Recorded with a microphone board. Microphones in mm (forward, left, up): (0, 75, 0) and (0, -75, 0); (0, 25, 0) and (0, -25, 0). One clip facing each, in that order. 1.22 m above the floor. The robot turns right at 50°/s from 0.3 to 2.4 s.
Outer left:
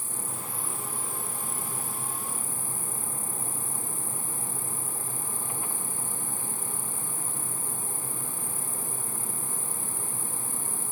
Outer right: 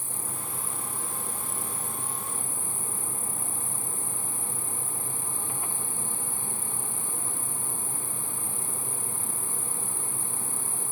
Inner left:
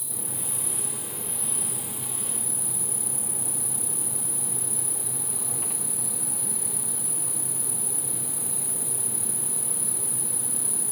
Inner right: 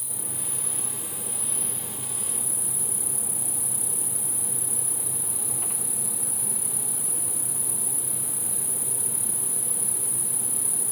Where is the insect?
60° right; by 10.9 s 45° left.